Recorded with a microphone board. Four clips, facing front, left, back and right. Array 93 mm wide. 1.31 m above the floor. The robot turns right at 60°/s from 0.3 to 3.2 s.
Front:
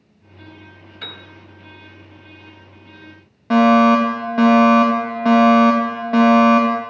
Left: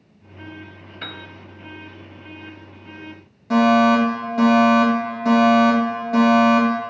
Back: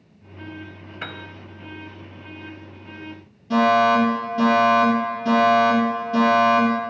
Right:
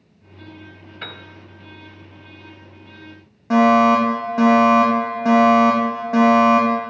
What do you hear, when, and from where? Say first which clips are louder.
1.0 s a piano: left 1 dB, back 3 dB; 175° right, 1.2 m; by 1.2 s 160° right, 1.2 m
3.5 s a fire alarm: right 2 dB, front 4 dB; 25° right, 3.5 m